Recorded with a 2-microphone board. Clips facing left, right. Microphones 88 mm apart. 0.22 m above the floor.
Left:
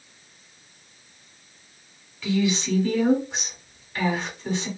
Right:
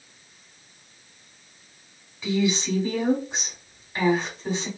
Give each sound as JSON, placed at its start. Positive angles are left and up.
{"t": 2.2, "sound": "a woman speaking", "side_deg": -20, "distance_m": 1.6}